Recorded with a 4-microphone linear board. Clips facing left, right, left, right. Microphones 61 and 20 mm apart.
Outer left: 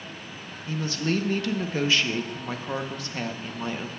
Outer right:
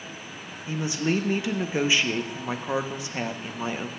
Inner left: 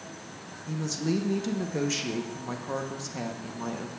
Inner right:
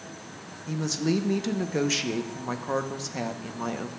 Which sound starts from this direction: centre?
A woman speaking, at 0.7 s.